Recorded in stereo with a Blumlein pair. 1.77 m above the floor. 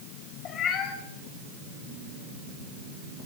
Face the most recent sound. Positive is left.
turn(degrees=30)